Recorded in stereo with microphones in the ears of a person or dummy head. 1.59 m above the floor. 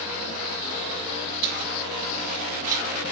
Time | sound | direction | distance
1.4 | keys jangling | 55° right (ahead or behind) | 3 m